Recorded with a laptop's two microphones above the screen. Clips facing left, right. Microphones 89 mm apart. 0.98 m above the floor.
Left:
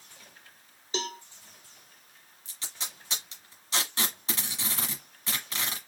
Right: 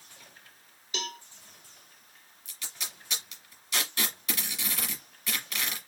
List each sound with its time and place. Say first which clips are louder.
0.9 s a cowbell: left 4 dB; 30° left (ahead or behind), 0.7 m
2.5 s tape being pulled: left 1 dB; 35° left (ahead or behind), 1.3 m